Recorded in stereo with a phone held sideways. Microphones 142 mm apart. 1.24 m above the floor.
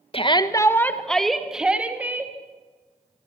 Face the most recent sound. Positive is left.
turn(degrees=-15)  # may be behind; listen again after turning